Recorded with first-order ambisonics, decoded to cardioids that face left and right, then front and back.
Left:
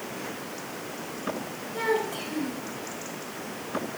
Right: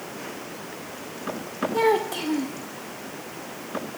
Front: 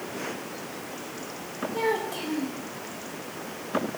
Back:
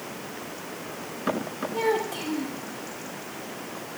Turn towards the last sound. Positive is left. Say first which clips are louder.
# right 5 dB, back 1 dB
turn(degrees=-95)